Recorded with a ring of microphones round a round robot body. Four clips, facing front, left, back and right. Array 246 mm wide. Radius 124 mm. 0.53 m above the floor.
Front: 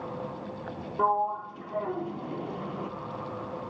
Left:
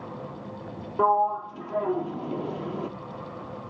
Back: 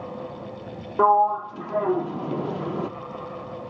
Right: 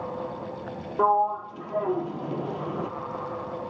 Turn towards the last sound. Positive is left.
turn(degrees=175)